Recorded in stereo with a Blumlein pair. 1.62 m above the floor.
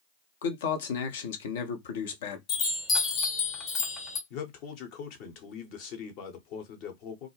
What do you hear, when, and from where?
0.4 s a man speaking: 60° left, 0.7 m
2.5 s a chime: 30° left, 1.0 m
4.3 s a man speaking: 45° left, 0.9 m